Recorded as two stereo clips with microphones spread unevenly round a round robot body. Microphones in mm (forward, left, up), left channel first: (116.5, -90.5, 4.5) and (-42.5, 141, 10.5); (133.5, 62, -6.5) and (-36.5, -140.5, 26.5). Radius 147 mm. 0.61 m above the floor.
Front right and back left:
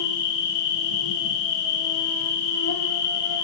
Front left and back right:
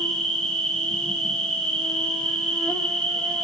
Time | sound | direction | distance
0.0 | an insect | 40° right | 1.8 m